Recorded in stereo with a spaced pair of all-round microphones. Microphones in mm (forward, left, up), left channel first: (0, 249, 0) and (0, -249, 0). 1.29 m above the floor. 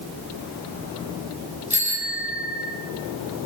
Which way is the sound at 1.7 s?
15° right (ahead or behind).